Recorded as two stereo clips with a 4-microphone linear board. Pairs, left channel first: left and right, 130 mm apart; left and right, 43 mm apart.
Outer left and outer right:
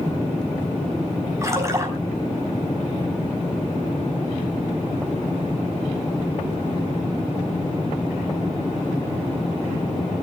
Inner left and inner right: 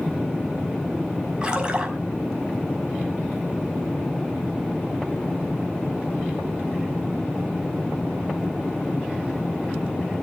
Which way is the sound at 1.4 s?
25° right (ahead or behind).